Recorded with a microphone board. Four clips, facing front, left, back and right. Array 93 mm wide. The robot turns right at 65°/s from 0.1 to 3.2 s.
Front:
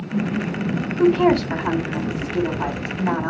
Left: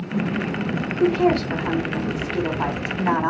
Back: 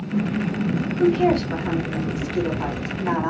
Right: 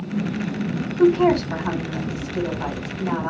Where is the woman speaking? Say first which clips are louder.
Right 3 dB, front 3 dB; 40° right, 1.7 m; by 3.3 s 105° left, 1.7 m.